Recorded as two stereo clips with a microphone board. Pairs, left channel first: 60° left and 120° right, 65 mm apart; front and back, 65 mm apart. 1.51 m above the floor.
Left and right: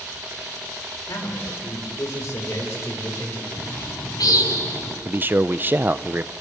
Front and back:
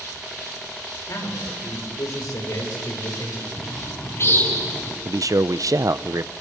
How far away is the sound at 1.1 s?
About 6.5 m.